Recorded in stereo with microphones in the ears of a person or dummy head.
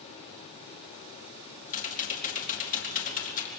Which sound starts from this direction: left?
Typing on a keyboard, at 1.7 s.